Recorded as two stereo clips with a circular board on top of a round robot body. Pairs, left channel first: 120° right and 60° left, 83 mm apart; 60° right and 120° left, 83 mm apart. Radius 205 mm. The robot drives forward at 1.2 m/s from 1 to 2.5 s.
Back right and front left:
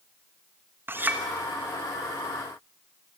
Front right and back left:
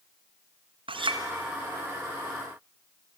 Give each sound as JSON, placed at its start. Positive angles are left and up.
{"t": 0.9, "sound": "a clink", "azimuth_deg": 125, "distance_m": 1.3}